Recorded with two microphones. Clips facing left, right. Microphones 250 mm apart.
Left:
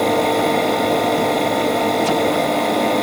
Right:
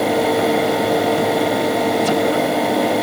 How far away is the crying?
I don't hear crying.